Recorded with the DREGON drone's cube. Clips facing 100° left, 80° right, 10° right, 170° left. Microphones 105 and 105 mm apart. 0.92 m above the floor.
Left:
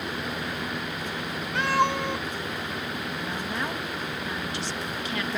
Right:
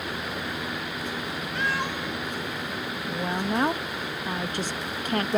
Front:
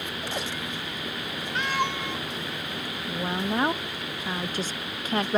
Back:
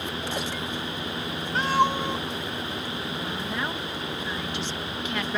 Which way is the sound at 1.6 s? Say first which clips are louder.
Left 7 dB, back 6 dB; 120° left.